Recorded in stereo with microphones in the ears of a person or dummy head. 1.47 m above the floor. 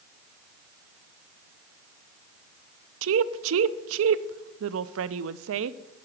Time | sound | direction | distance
3.0 | a woman speaking | 85° right | 0.5 m